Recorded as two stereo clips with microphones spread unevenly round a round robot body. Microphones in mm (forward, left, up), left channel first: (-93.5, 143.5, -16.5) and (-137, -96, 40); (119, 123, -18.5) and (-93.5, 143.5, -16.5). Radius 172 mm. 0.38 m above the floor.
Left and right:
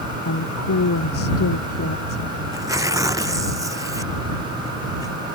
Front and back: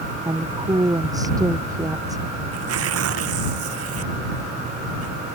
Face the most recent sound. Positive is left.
turn(degrees=-175)